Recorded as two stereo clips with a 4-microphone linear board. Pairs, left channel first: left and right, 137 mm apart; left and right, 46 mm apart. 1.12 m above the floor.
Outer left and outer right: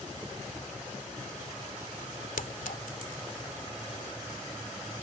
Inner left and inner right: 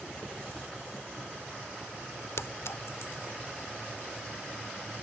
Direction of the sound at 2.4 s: 80° left.